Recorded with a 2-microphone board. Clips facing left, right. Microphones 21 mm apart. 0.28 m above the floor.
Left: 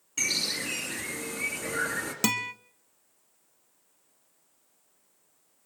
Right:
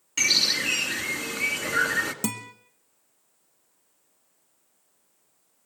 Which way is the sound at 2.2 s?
45° left (ahead or behind).